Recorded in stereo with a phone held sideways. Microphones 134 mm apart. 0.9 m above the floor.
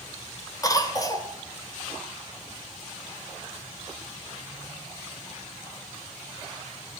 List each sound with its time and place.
0.6 s a cough: 25° left (ahead or behind), 3 m